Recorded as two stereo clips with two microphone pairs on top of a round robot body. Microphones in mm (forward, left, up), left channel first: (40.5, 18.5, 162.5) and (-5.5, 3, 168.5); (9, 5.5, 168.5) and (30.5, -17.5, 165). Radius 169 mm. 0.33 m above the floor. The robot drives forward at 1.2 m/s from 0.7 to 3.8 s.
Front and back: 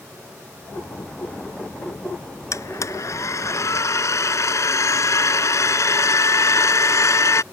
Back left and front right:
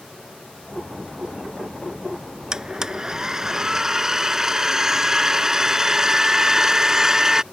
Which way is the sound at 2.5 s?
20° left.